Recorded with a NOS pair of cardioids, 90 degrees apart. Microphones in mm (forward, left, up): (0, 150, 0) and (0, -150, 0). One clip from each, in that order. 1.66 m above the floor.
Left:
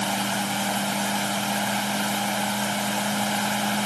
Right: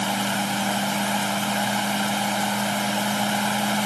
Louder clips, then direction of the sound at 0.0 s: Right 1 dB; 20° right.